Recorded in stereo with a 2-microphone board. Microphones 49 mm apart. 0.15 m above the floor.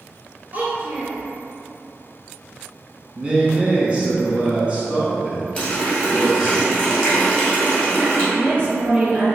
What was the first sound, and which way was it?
A child speaking, 35° right (ahead or behind).